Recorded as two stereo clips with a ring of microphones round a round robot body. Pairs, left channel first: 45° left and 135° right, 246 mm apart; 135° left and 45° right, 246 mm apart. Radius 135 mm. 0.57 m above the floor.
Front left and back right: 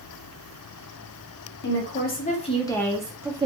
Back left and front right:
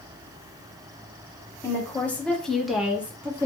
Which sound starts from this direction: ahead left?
A woman speaking, at 1.6 s.